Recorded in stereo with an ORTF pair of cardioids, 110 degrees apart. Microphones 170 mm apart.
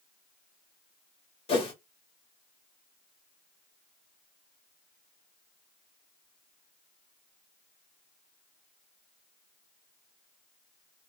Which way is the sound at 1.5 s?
35° left.